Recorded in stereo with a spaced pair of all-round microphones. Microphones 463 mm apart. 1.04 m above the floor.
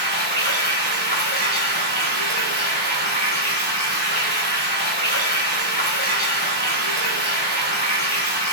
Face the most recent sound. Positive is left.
turn(degrees=-75)  # may be behind; listen again after turning